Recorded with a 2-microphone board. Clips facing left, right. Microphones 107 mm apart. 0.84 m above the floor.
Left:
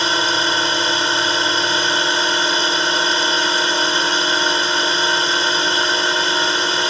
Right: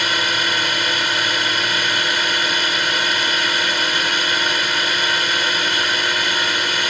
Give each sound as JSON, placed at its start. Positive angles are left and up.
{"t": 0.0, "sound": "a drone", "side_deg": 30}